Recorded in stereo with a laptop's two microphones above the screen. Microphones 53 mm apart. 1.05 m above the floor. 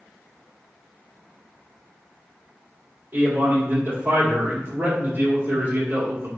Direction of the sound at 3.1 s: 60° right (ahead or behind).